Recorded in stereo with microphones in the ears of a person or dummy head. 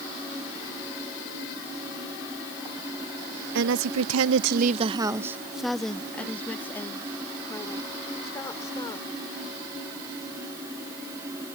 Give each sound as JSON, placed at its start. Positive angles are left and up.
{"t": 3.5, "sound": "a woman speaking", "side_deg": -70}